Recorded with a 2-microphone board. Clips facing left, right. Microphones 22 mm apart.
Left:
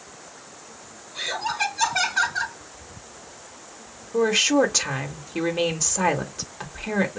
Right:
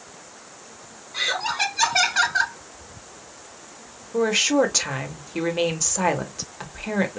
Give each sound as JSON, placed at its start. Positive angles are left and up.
{"t": 1.1, "sound": "laughter", "side_deg": -70, "distance_m": 2.5}
{"t": 4.1, "sound": "a woman speaking", "side_deg": 0, "distance_m": 1.3}